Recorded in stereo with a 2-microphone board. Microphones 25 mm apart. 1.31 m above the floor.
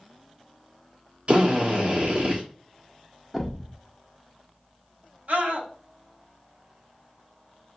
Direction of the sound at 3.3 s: 10° right (ahead or behind).